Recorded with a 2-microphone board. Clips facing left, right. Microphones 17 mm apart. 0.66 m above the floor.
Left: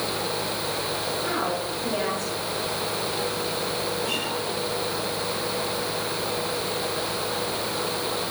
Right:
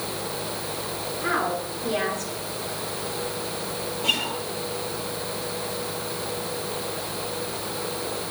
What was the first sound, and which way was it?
A woman speaking, 60° right (ahead or behind).